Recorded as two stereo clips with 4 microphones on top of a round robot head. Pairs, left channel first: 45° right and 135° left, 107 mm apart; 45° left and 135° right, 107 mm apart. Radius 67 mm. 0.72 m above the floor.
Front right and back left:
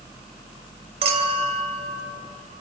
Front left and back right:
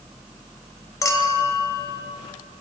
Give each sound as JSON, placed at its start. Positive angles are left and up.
{"t": 1.0, "sound": "a clink", "azimuth_deg": 105, "distance_m": 3.0}